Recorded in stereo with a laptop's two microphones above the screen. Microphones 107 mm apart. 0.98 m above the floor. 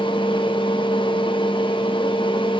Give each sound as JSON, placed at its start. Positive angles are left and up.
{"t": 0.0, "sound": "a fan", "side_deg": 50, "distance_m": 1.2}